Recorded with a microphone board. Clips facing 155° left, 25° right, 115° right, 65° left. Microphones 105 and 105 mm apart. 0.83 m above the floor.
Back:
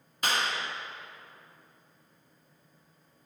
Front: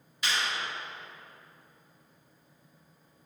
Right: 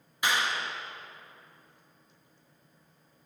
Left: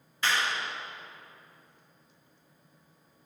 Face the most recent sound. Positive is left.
turn(degrees=175)